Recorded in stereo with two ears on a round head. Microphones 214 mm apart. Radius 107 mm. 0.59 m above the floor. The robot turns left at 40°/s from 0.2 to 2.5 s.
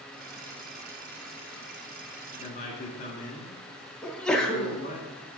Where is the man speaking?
30° left (ahead or behind), 1.2 m.